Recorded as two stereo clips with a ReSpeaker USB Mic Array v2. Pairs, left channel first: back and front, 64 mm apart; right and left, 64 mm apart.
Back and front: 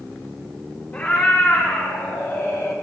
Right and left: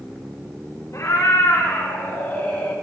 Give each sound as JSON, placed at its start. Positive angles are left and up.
{"t": 0.9, "sound": "a cat meowing", "azimuth_deg": -125, "distance_m": 2.5}